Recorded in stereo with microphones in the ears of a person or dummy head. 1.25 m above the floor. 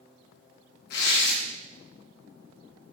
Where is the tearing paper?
65° left (ahead or behind), 0.9 m.